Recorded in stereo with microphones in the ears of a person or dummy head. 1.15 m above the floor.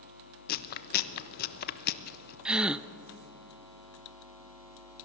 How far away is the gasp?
About 0.6 m.